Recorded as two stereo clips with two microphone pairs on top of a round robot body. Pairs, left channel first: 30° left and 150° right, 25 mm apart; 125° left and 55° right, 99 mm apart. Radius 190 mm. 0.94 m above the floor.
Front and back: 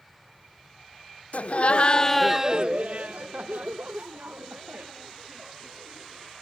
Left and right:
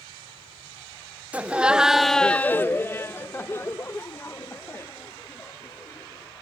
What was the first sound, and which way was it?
Laughter, 15° left.